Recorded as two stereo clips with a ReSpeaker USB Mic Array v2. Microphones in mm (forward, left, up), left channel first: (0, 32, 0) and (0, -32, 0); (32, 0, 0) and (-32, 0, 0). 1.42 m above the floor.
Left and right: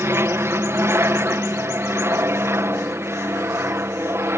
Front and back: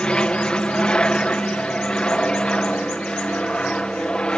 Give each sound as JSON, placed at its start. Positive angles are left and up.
{"t": 0.0, "sound": "an aircraft", "azimuth_deg": -65}